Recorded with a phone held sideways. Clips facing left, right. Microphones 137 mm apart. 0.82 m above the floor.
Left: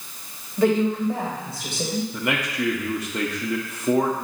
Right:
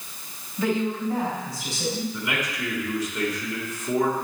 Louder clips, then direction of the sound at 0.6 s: Left 5 dB; 65° left (ahead or behind).